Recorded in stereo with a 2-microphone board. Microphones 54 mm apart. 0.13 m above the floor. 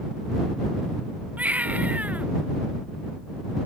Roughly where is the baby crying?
Right.